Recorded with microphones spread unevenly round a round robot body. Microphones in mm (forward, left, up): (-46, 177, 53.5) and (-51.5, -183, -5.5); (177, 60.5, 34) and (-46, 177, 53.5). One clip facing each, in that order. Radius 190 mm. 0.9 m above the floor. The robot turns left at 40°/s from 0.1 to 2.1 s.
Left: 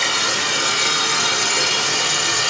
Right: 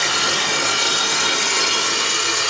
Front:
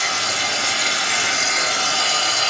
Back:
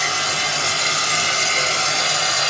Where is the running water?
165° left, 1.4 m; by 2.5 s 85° left, 1.4 m.